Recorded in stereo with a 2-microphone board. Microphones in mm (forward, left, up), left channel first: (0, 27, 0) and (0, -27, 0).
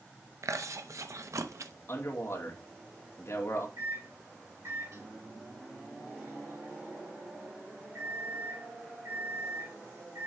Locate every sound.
0.4 s chewing: 75° right (ahead or behind), 0.7 m
1.9 s a man speaking: 55° left (ahead or behind), 2 m
3.8 s a microwave: 65° right (ahead or behind), 4.5 m